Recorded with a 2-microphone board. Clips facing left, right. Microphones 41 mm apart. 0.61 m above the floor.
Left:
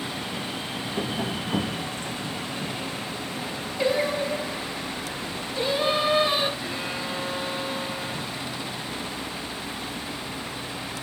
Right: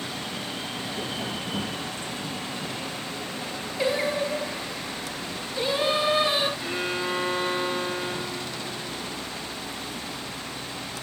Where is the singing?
Centre (ahead or behind), 1.5 m.